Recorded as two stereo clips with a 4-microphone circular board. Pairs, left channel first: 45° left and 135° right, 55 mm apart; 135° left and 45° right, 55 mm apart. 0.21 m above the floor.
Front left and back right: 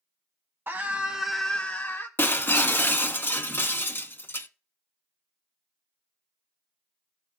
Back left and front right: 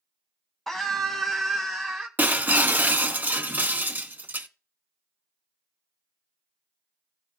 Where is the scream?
145° right, 1.3 m; by 2.1 s 45° left, 1.4 m.